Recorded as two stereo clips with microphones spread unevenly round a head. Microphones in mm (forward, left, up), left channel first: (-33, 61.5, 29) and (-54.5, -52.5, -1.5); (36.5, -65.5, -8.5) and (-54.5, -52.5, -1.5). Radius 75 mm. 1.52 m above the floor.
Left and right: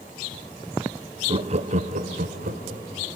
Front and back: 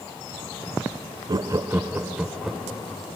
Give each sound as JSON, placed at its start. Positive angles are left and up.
{"t": 1.3, "sound": "laughter", "azimuth_deg": -140, "distance_m": 0.9}